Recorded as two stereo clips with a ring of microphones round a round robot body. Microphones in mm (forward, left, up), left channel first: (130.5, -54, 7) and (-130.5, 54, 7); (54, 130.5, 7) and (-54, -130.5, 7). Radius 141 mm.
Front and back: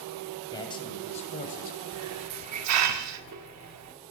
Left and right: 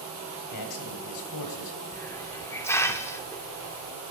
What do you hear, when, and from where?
0.5 s a man speaking: 55° left, 3 m; by 1.8 s 35° left, 2.5 m
1.9 s a hiss: 145° left, 0.9 m